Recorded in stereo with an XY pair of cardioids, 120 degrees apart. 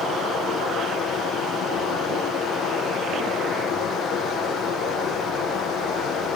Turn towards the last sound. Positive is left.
turn(degrees=55)